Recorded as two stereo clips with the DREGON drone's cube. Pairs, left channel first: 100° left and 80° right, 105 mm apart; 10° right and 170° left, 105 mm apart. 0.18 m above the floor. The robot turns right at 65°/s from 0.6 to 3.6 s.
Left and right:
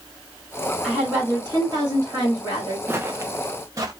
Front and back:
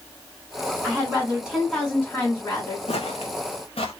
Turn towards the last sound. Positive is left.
turn(degrees=-25)